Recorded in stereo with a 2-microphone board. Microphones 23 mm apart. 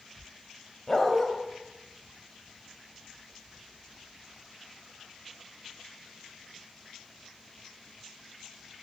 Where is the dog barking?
20° left (ahead or behind), 1.7 m.